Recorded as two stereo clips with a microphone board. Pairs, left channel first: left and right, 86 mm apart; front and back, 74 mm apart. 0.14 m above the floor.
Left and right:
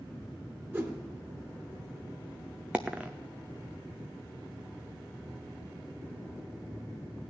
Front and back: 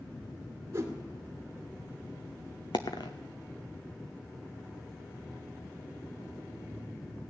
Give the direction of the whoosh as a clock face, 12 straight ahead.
5 o'clock.